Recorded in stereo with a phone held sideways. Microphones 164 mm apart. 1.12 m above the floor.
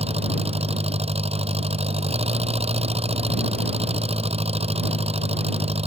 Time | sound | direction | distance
0.0 | an engine running | 40° right (ahead or behind) | ?